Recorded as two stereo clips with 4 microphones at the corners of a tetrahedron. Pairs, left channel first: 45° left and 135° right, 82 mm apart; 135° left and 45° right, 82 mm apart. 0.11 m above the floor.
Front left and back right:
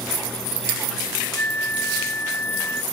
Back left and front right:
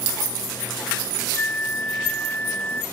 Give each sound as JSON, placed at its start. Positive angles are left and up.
{"t": 1.4, "sound": "a flute", "azimuth_deg": 85}